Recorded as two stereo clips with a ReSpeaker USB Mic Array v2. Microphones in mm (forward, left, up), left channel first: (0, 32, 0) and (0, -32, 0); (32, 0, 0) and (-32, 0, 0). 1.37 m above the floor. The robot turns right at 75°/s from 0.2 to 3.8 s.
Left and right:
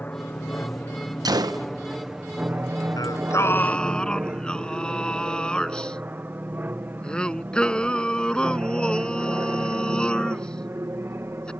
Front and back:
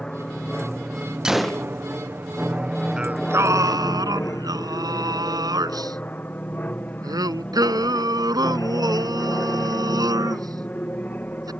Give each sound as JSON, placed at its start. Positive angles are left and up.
{"t": 0.0, "sound": "an aircraft", "azimuth_deg": 65}
{"t": 1.2, "sound": "a gunshot", "azimuth_deg": -100}
{"t": 3.0, "sound": "singing", "azimuth_deg": 105}